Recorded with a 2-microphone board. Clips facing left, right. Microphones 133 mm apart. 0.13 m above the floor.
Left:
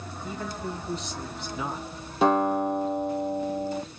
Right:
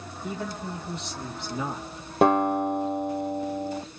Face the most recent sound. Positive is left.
turn(degrees=-60)  # may be behind; listen again after turning